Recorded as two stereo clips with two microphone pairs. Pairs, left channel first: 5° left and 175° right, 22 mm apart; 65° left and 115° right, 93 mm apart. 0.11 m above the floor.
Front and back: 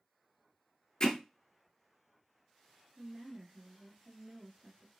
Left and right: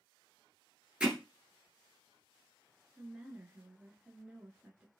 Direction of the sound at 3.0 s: Straight behind.